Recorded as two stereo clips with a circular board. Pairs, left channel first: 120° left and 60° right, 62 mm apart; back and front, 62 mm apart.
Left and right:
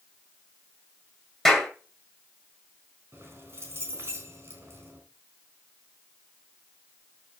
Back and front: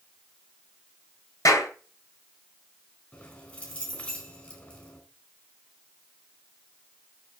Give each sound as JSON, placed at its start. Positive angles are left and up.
{"t": 1.4, "sound": "a clap", "azimuth_deg": -150, "distance_m": 7.5}
{"t": 3.1, "sound": "keys jangling", "azimuth_deg": -110, "distance_m": 4.0}